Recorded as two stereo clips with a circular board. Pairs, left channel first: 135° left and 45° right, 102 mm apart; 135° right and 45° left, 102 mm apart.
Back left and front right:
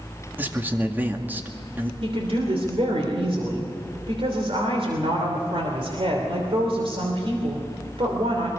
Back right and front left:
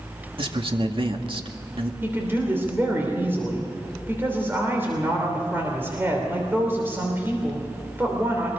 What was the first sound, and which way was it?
A man speaking, 25° left.